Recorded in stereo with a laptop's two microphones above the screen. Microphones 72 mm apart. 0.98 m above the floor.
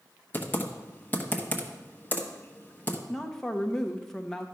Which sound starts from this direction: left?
Typing on a keyboard, at 0.3 s.